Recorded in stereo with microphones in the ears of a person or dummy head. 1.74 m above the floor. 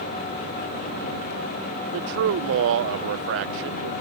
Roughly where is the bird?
I don't hear a bird.